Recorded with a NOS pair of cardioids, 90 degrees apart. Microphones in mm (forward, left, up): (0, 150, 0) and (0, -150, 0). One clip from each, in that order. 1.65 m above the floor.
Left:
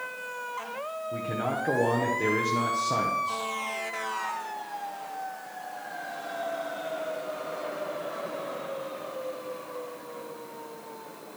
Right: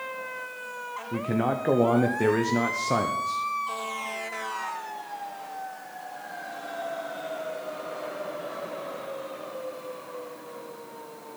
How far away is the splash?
I don't hear a splash.